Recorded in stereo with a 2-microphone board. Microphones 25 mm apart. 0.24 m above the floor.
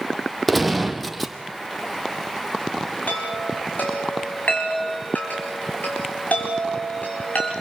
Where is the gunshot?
Centre (ahead or behind), 1.5 m.